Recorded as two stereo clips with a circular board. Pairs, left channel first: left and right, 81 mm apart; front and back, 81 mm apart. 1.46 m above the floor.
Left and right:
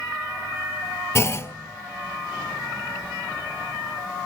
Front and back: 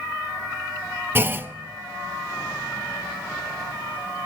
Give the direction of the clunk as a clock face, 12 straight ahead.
8 o'clock.